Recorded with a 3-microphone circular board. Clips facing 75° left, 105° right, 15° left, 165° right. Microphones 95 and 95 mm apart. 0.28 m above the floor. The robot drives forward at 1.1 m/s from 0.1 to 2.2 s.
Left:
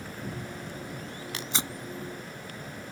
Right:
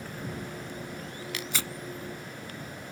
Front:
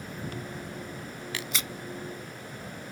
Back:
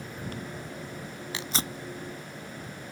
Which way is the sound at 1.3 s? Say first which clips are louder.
Left 2 dB, back 3 dB; 130° left.